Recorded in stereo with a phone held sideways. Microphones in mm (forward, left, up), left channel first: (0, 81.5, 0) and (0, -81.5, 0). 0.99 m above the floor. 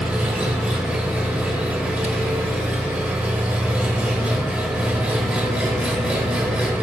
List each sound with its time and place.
0.0 s an engine running: 5° right (ahead or behind), 1.0 m